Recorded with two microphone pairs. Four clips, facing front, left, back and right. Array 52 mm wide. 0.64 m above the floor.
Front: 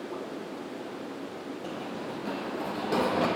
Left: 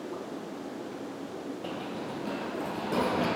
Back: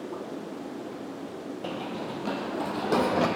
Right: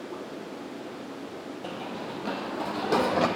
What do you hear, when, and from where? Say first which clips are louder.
1.6 s running footsteps: right 3 dB, back 4 dB; 165° right, 0.8 m; by 3.3 s 120° right, 1.4 m